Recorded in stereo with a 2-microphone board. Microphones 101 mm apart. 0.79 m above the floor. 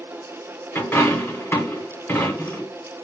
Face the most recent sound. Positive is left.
turn(degrees=20)  # may be behind; listen again after turning